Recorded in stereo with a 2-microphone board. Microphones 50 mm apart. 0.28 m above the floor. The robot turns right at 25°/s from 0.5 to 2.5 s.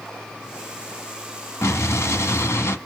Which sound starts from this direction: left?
An explosion, at 1.6 s.